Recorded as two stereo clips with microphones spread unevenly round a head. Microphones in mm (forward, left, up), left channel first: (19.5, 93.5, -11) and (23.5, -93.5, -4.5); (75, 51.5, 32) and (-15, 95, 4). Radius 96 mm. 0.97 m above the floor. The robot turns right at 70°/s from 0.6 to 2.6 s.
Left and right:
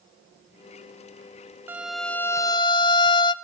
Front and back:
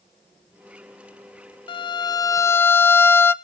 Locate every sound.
1.7 s a violin: 15° right, 1.0 m; by 3.3 s 50° left, 1.0 m